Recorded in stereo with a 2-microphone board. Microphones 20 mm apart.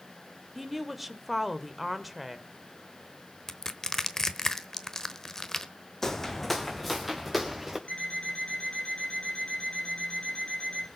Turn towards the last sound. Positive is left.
turn(degrees=65)  # may be behind; listen again after turning